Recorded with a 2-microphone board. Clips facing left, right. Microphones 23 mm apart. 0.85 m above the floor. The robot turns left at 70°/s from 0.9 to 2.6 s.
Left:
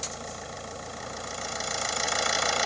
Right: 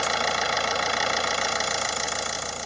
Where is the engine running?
95° right; by 2.7 s 145° left.